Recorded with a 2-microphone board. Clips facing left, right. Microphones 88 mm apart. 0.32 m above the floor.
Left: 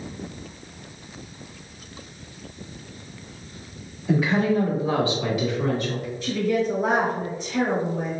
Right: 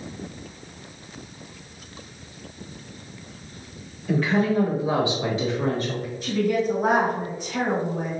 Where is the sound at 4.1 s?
15° left (ahead or behind), 0.9 m; by 6.1 s 45° right (ahead or behind), 1.1 m.